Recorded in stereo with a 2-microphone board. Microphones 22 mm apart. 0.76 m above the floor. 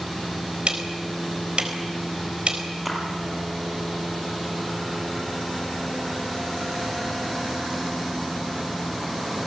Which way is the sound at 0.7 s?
65° right (ahead or behind).